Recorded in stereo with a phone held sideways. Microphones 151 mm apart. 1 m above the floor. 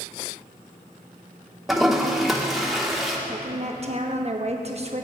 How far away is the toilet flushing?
About 1.3 m.